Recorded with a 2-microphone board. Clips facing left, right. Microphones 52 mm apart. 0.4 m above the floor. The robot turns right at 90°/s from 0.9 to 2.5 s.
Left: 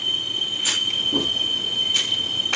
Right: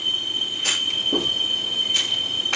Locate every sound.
0.6 s a clunk: 60° right (ahead or behind), 7 m; by 1.3 s 25° right (ahead or behind), 7 m